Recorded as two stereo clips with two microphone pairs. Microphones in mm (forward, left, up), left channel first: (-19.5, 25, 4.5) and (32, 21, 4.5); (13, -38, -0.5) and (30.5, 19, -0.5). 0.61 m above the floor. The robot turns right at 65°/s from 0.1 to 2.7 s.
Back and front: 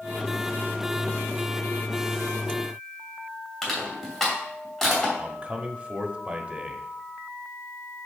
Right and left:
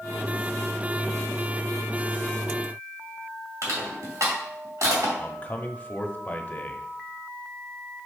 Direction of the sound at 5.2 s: 55° right.